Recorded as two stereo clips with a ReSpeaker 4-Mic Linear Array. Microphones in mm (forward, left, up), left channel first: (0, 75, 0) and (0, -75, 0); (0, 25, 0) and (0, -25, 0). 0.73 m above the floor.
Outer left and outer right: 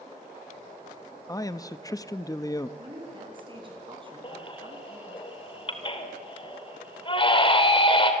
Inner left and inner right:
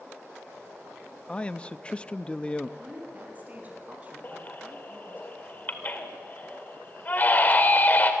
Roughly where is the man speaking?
Left.